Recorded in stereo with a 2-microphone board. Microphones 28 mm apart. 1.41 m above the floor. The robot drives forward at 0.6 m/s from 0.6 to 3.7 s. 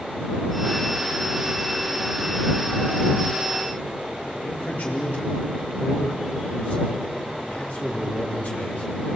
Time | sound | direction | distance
4.4 | a man speaking | 80° left | 3.5 m